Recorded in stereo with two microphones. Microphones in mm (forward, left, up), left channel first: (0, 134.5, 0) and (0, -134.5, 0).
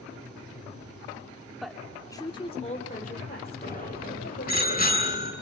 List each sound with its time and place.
1.6 s a woman speaking: centre (ahead or behind), 2.5 m; by 4.6 s 45° left (ahead or behind), 5.5 m
3.6 s a bicycle bell: 30° left (ahead or behind), 7.5 m